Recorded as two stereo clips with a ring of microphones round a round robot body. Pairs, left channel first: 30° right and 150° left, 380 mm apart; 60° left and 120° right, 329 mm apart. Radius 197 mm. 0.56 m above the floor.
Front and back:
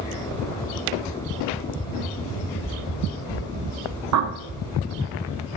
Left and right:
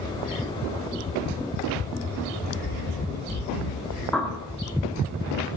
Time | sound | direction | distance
2.6 | running footsteps | 70° left | 0.9 m
4.1 | a bird | 145° left | 0.9 m